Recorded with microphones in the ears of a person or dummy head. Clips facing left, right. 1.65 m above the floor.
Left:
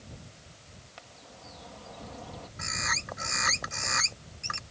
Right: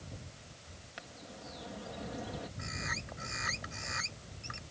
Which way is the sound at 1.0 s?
15° right (ahead or behind).